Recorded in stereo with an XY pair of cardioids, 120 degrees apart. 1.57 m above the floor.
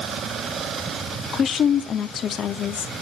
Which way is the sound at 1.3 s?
45° left.